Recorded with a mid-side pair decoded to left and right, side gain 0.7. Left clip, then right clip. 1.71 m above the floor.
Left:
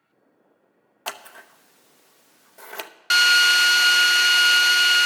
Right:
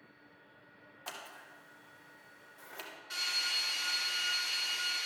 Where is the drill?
65° left, 0.6 m.